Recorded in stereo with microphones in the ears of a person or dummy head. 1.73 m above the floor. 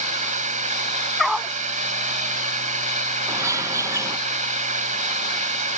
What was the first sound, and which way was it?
A drone, 40° right (ahead or behind).